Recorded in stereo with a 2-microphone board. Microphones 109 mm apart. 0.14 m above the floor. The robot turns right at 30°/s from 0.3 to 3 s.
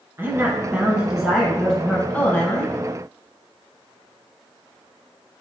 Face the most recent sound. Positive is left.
turn(degrees=50)